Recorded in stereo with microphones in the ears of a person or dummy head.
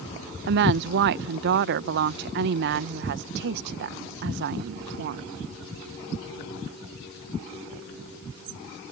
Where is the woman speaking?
55° right (ahead or behind).